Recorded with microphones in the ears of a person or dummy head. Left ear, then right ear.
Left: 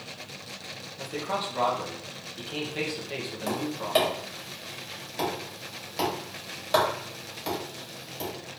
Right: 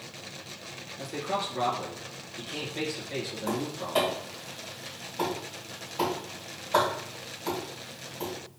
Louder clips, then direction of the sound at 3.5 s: Left 5 dB; 40° left (ahead or behind).